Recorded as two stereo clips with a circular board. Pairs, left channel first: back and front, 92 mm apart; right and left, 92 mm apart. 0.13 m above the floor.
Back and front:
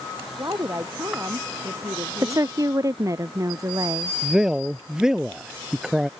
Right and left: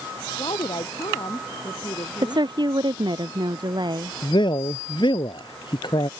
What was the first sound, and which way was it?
A woman speaking, 55° right.